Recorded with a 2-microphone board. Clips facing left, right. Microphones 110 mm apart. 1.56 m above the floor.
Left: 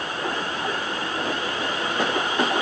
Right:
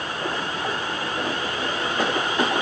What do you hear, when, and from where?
Only background noise.